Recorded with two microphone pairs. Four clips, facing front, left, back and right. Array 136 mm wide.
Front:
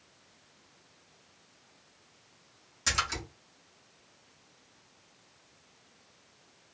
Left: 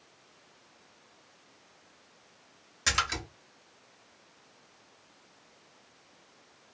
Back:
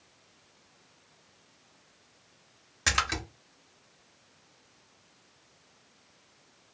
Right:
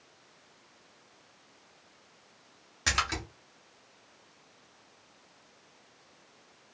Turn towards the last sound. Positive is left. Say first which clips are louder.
# even, back 3 dB
turn(degrees=-170)